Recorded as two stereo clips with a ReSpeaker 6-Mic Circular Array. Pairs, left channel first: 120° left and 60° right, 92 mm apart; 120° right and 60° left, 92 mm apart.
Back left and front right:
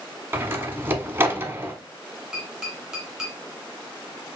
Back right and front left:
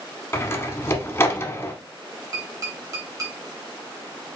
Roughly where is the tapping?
Ahead left.